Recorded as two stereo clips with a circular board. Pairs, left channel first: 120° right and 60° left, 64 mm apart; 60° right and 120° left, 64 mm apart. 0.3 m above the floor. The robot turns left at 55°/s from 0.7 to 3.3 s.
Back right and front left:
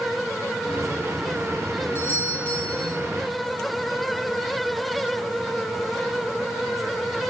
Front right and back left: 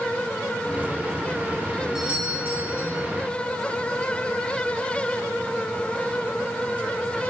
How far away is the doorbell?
About 2 m.